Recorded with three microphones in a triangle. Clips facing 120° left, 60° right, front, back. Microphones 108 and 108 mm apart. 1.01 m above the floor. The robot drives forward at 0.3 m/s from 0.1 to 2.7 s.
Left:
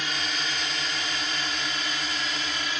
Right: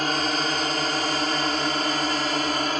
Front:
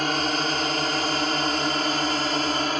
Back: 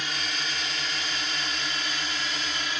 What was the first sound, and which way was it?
A drone, 25° right.